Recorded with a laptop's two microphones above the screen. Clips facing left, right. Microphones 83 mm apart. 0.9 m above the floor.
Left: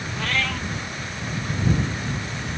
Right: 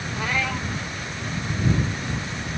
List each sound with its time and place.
0.2 s a cat meowing: 15° right (ahead or behind)